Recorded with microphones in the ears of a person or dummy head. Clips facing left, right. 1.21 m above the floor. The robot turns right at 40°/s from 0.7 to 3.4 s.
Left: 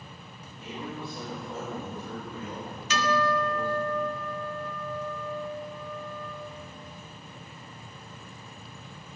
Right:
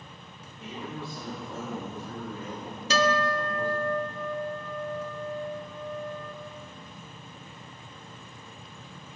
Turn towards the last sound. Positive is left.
turn(degrees=-25)  # may be behind; listen again after turning